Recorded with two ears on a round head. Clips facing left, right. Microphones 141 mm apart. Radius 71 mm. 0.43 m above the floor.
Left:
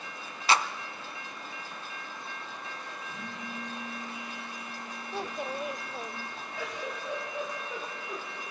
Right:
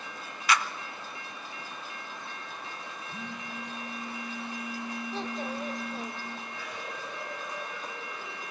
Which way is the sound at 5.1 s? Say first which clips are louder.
Left 3 dB; 10° left (ahead or behind).